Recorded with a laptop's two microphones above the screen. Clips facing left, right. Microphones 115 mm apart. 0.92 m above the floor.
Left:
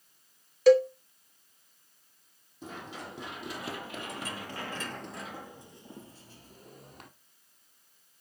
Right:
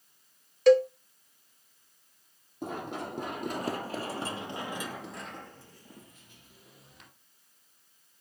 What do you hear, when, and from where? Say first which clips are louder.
0.7 s a cowbell: even; centre (ahead or behind), 0.8 m
2.6 s running footsteps: right 6 dB; 55° right (ahead or behind), 2.5 m; by 7.1 s 55° left (ahead or behind), 2 m